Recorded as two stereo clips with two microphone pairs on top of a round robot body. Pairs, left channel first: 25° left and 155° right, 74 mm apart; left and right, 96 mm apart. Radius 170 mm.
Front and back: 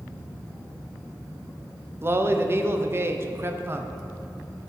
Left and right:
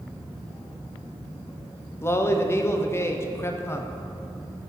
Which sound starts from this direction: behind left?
A man speaking, at 2.0 s.